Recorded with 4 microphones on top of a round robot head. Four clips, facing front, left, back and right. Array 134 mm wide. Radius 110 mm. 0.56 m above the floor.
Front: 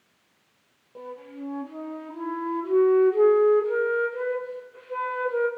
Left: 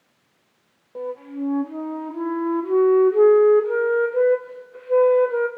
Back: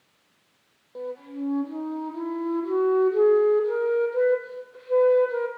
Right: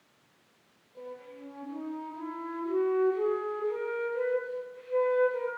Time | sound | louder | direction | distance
0.9 | a flute | left 15 dB, back 5 dB | 105° left | 4.5 m